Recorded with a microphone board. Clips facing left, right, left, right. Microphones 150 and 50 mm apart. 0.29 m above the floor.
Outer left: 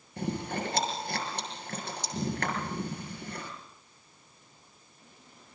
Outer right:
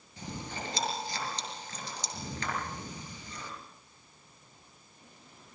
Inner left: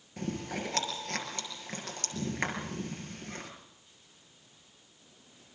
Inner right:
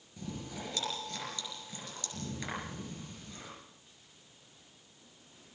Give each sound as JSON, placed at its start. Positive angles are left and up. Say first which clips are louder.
{"t": 0.2, "sound": "chewing", "louder": "outer left 8 dB, inner left 6 dB", "side_deg": 55, "distance_m": 6.0}